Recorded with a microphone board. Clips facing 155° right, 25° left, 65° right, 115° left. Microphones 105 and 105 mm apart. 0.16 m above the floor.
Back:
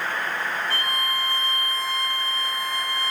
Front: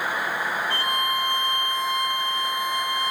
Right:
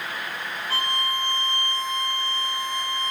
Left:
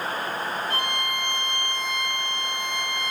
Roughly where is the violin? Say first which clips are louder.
Front 2 dB, even; ahead right.